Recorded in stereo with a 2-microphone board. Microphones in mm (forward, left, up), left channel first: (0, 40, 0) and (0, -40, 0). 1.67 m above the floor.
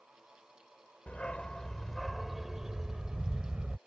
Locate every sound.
1.1 s a dog barking: 20° left (ahead or behind); by 3.8 s 20° right (ahead or behind)